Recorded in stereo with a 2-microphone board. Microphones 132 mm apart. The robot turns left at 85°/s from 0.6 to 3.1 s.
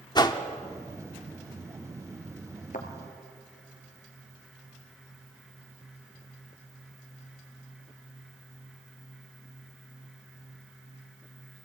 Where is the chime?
No chime in this recording.